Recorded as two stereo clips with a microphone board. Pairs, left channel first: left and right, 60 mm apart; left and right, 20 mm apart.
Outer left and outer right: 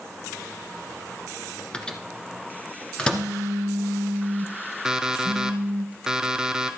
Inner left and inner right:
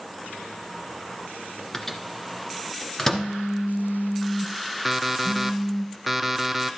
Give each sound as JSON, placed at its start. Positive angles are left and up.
{"t": 1.7, "sound": "a microwave", "side_deg": 15, "distance_m": 1.2}
{"t": 3.1, "sound": "a phone buzzing", "side_deg": -25, "distance_m": 1.5}
{"t": 4.8, "sound": "an alarm clock", "side_deg": -10, "distance_m": 0.7}